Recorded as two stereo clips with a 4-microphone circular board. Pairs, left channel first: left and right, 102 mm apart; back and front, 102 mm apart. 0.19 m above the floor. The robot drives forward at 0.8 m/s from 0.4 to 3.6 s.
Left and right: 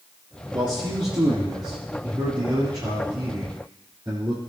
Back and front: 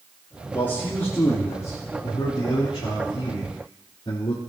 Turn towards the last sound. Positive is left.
turn(degrees=-145)